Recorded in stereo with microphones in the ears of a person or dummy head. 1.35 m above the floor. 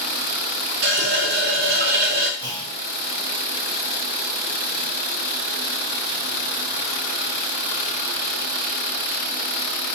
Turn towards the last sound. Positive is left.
turn(degrees=-25)  # may be behind; listen again after turning